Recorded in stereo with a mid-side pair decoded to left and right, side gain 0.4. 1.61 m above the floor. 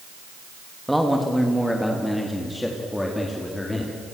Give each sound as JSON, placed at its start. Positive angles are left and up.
{"t": 0.9, "sound": "a man speaking", "azimuth_deg": -5, "distance_m": 2.5}